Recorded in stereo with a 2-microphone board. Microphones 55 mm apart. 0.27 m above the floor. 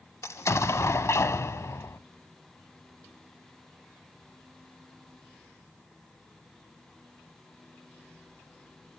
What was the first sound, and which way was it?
An explosion, 60° left (ahead or behind).